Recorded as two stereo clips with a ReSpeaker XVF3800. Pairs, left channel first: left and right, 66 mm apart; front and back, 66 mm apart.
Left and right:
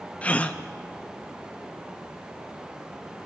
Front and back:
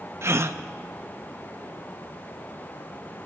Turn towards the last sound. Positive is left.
turn(degrees=150)